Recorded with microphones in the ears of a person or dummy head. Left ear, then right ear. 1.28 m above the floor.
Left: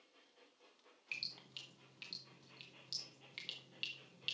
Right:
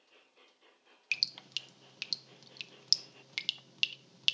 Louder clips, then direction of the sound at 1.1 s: Right 12 dB; 50° right (ahead or behind).